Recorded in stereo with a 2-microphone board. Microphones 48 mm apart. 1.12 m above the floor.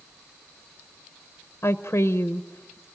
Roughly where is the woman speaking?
Left.